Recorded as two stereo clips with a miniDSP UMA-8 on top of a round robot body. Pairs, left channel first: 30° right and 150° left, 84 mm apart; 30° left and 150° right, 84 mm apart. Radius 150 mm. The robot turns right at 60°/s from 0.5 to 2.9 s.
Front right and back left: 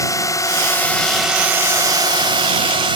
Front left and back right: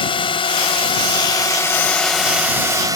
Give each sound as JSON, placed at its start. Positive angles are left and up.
{"t": 0.0, "sound": "a drone", "azimuth_deg": 20}